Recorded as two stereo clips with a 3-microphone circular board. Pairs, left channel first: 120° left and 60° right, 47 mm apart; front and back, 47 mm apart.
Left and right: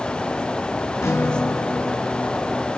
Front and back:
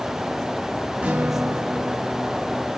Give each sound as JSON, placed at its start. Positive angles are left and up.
{"t": 1.0, "sound": "a guitar", "azimuth_deg": 110, "distance_m": 1.9}